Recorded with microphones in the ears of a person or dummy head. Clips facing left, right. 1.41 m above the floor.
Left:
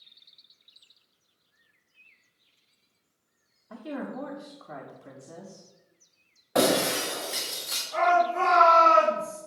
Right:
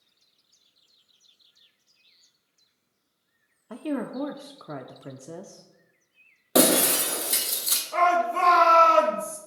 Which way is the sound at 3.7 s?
60° right (ahead or behind).